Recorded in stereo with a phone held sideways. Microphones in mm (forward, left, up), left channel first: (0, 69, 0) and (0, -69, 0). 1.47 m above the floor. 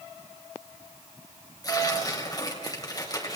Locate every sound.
1.6 s tearing paper: 25° left (ahead or behind), 4.5 m